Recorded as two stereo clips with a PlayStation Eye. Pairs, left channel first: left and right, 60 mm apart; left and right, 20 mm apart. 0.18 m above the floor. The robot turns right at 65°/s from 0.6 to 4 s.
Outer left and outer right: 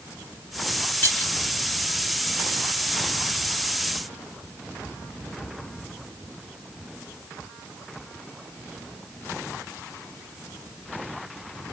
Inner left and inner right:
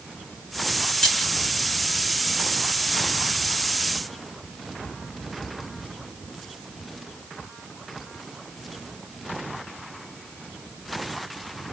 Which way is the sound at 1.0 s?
30° left (ahead or behind).